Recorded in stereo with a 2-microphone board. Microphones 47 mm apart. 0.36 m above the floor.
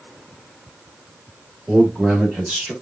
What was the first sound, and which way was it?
A man speaking, 25° right (ahead or behind).